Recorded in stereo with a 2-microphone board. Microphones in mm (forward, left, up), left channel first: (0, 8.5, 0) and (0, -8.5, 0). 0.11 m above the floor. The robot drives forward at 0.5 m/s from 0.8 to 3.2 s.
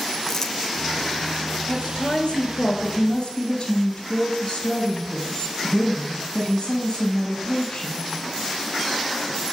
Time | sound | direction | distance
0.3 | crumpling | 20° left (ahead or behind) | 1.3 m
1.7 | a woman speaking | 50° left (ahead or behind) | 2 m